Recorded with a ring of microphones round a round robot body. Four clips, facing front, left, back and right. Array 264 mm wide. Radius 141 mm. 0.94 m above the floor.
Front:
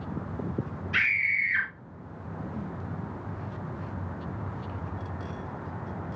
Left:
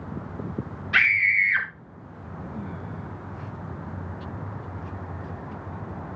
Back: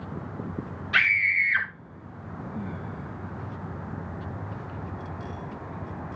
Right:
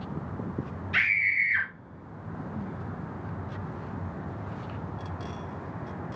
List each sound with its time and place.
0.9 s a scream: 130° left, 4.5 m